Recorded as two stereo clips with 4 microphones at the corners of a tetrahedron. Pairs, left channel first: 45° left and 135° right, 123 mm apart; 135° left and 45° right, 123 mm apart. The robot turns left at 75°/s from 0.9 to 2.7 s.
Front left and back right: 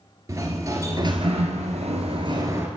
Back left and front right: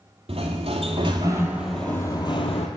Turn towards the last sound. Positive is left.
turn(degrees=150)